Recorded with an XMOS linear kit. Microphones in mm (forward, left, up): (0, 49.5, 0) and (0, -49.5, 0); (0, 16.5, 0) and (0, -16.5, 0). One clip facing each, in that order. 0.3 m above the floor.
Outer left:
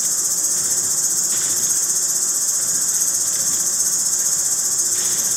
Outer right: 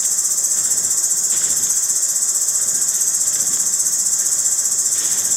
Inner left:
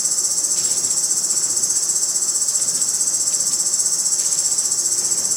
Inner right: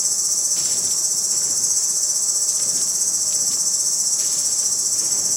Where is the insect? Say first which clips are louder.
Outer left 3 dB, even; 60° left (ahead or behind), 2.5 m.